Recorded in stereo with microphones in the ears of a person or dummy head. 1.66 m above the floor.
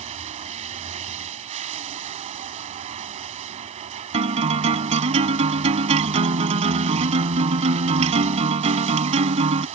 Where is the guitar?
35° right (ahead or behind).